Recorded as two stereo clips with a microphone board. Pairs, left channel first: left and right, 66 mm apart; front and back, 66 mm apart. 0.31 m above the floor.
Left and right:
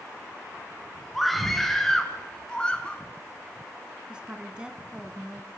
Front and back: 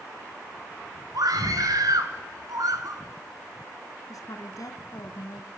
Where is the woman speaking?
15° right, 2.5 m.